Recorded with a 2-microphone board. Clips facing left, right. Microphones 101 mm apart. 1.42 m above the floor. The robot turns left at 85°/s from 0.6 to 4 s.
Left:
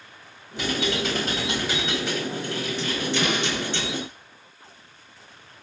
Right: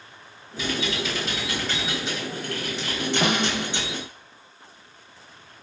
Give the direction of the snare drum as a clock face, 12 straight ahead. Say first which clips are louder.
Right 2 dB; 2 o'clock.